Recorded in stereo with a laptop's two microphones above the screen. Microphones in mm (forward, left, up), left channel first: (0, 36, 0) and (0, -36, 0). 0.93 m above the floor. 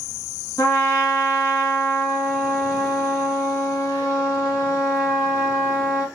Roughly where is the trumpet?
Left.